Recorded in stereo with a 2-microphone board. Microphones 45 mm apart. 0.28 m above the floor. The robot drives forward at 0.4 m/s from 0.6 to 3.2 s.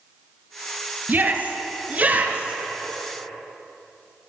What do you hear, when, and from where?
1.1 s a shout: 40° right (ahead or behind), 2 m; by 2.6 s 35° right (ahead or behind), 2.5 m